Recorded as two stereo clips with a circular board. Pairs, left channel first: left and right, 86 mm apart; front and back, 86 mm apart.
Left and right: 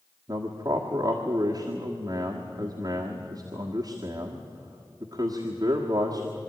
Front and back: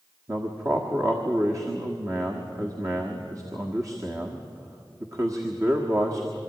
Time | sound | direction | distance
0.3 | a man speaking | 130° right | 1.6 m